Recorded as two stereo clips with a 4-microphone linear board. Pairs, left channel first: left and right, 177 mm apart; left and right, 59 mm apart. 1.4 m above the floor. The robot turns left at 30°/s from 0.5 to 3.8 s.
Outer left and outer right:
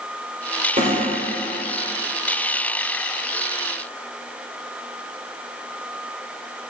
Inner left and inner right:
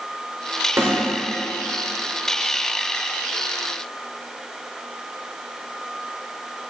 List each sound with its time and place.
0.8 s a snare drum: 50° right (ahead or behind), 5.5 m; by 1.0 s 45° right (ahead or behind), 5.5 m